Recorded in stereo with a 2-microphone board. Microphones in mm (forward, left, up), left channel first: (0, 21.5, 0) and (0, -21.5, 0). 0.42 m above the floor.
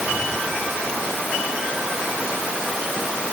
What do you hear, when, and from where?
Only background noise.